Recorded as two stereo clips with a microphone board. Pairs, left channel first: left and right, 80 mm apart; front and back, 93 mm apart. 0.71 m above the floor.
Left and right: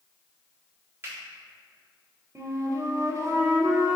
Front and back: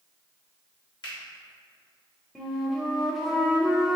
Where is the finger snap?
30° right, 1.4 m.